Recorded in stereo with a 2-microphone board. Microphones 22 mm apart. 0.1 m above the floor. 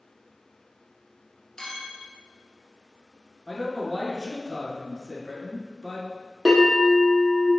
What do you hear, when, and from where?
1.6 s a clink: 25° left (ahead or behind), 1.1 m
3.5 s a man speaking: 25° left (ahead or behind), 1.2 m
6.5 s a bell: 20° right (ahead or behind), 1.7 m